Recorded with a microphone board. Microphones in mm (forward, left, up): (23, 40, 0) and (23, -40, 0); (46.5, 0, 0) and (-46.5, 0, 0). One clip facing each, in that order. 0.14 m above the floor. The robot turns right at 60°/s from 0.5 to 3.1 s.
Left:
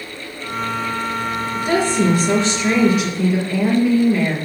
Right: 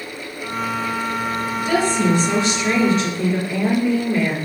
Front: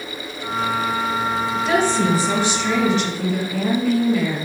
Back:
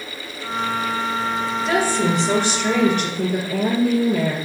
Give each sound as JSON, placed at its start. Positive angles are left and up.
{"t": 1.6, "sound": "a woman speaking", "azimuth_deg": 80, "distance_m": 3.0}